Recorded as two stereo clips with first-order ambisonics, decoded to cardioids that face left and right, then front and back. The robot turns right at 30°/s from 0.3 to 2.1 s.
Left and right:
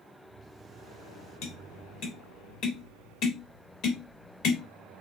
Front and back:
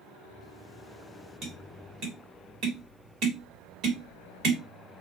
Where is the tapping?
115° left, 3.5 m; by 4.6 s 135° left, 3.5 m.